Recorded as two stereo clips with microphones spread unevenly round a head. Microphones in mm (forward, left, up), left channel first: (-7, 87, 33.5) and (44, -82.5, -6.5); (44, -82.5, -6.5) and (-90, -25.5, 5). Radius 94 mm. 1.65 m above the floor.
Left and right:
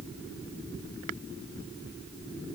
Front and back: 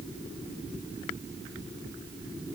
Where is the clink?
No clink in this recording.